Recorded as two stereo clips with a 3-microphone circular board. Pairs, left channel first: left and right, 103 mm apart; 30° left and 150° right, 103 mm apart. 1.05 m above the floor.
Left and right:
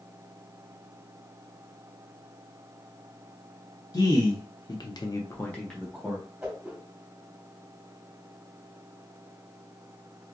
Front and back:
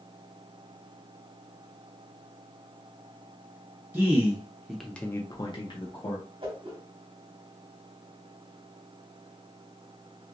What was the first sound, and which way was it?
A man speaking, 140° left.